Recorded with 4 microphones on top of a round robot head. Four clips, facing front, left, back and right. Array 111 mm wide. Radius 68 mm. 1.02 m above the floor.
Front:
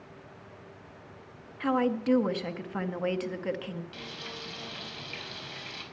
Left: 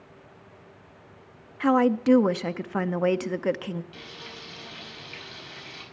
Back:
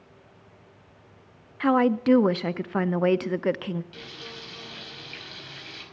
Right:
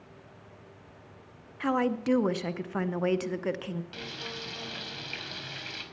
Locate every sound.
1.6 s a woman speaking: 150° left, 0.7 m
3.9 s frying: 85° right, 5 m